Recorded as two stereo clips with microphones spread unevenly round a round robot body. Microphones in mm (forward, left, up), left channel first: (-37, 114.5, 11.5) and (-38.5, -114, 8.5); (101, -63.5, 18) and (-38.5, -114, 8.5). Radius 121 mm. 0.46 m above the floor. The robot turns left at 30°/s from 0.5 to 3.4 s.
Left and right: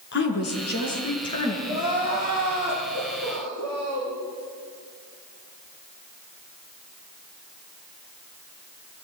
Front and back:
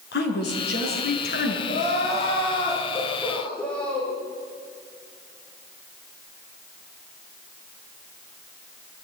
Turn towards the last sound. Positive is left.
turn(degrees=-65)